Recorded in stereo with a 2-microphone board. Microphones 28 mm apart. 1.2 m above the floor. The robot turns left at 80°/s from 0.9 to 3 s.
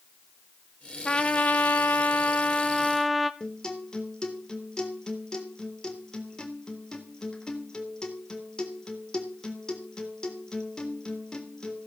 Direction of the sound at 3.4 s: 25° left (ahead or behind).